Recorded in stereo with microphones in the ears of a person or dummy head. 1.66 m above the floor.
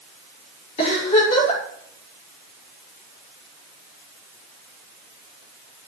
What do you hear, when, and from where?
0.8 s a giggle: 35° left (ahead or behind), 6 m